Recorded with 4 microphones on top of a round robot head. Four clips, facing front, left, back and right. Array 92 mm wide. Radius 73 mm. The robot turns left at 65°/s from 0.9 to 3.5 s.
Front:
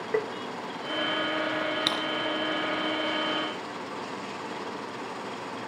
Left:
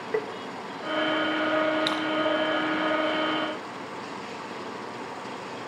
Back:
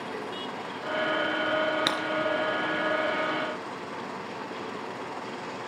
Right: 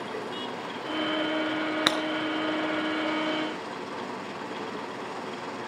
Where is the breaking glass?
95° right, 2.5 m; by 2.0 s 105° right, 2.5 m.